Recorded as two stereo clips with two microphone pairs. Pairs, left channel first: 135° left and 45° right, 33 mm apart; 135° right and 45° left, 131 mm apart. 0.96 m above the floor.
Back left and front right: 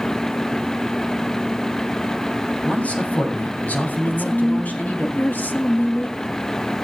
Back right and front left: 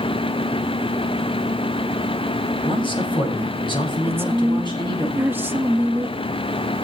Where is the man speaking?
175° left, 6 m; by 5.1 s 170° left, 7.5 m.